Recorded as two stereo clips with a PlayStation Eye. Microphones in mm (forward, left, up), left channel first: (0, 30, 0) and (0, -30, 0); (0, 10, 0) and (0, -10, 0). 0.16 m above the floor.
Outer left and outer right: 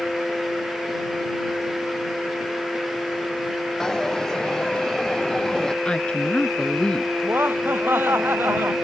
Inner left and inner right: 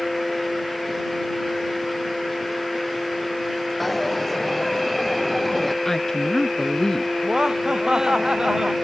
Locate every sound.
3.8 s a dropped coin: 10° left (ahead or behind)
5.8 s a woman speaking: 15° left (ahead or behind)
7.2 s laughter: 40° right (ahead or behind)